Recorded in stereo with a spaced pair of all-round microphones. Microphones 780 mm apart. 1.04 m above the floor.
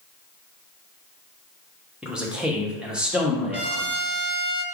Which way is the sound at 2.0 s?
Centre (ahead or behind).